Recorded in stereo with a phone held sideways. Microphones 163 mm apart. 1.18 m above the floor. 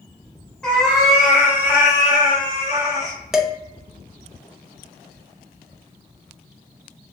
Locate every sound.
0.6 s a cat meowing: 5° left (ahead or behind), 1.4 m; by 3.2 s 50° right (ahead or behind), 1.2 m
3.3 s dishes clattering: 5° right (ahead or behind), 0.6 m